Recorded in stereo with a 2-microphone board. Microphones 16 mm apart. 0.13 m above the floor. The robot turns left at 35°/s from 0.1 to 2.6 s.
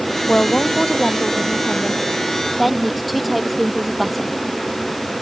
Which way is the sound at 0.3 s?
85° left.